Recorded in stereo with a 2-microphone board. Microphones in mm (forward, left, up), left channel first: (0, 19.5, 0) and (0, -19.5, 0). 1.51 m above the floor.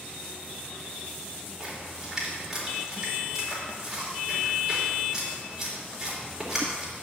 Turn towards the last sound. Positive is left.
turn(degrees=-10)  # may be behind; listen again after turning